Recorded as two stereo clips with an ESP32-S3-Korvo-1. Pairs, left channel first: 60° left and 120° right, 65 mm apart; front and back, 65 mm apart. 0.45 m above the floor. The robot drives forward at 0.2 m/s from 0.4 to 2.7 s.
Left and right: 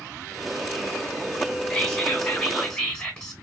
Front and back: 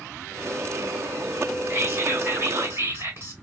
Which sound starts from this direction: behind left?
Whispering, at 1.7 s.